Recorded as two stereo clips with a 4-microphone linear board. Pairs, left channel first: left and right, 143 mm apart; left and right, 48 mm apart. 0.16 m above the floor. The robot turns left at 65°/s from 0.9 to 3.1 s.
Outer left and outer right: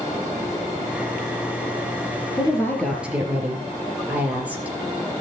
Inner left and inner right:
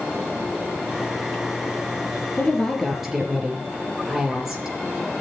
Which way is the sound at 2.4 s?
35° left.